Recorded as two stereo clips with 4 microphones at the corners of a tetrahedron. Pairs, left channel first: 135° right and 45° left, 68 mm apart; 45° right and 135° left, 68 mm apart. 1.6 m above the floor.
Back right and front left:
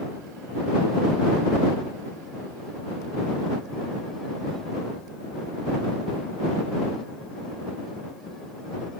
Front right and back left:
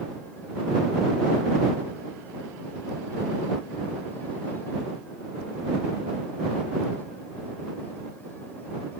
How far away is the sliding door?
No sliding door in this recording.